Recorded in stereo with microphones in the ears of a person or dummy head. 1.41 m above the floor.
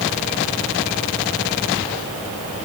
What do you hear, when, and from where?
Only background noise.